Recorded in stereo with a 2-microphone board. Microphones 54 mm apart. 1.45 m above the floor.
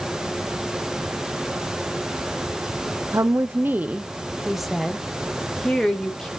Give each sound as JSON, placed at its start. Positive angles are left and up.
{"t": 3.1, "sound": "a woman speaking", "side_deg": -65, "distance_m": 0.8}